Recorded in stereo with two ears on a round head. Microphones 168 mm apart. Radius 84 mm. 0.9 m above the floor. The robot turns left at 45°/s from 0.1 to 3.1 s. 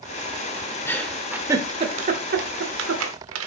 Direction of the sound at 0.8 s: 15° left (ahead or behind).